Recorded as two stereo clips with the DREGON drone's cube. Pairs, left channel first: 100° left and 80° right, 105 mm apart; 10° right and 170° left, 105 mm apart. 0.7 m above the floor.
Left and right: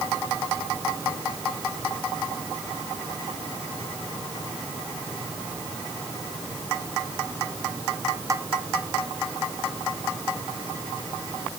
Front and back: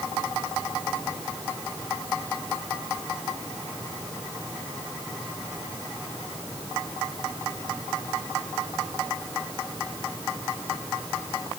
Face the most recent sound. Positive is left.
No sound to turn to.